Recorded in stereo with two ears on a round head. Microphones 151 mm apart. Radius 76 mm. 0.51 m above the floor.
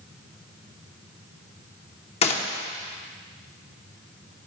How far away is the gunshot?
About 1.2 m.